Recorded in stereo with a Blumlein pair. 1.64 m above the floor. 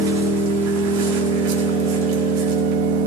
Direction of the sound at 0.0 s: 50° right.